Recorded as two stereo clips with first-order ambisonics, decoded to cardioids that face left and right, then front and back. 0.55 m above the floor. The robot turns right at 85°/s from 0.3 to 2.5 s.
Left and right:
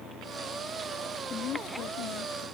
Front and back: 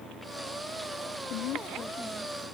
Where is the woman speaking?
25° left; by 2.5 s 120° left.